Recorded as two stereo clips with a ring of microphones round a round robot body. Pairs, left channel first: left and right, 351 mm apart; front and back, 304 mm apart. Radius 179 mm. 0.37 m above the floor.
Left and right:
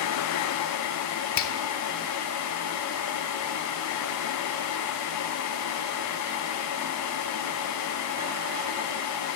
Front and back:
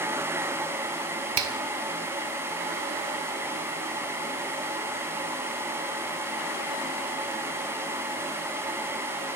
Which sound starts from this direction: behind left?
A finger snap, at 1.4 s.